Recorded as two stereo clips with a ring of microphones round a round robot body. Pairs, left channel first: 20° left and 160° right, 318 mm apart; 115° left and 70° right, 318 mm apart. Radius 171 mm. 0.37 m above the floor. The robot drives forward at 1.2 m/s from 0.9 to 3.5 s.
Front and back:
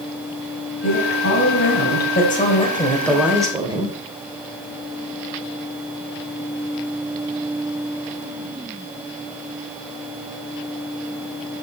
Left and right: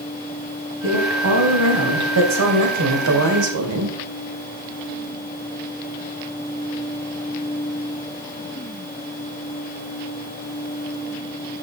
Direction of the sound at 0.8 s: 20° right.